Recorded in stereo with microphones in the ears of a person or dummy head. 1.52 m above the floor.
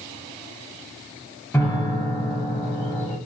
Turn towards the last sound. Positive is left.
turn(degrees=10)  # may be behind; listen again after turning